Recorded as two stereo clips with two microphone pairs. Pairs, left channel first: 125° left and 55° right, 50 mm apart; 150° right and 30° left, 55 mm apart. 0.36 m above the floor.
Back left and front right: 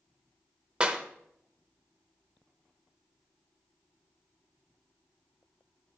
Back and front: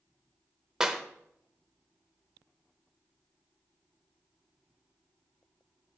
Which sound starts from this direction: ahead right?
A clap, at 0.8 s.